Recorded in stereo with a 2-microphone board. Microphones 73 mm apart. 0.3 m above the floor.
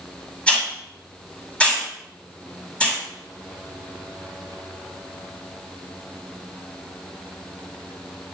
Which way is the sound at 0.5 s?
15° left (ahead or behind).